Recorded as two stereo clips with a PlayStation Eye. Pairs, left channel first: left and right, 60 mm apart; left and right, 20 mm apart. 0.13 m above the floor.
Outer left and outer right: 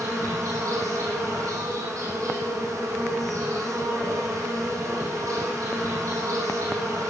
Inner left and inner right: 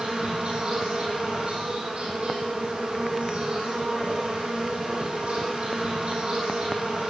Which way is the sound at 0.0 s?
65° right (ahead or behind).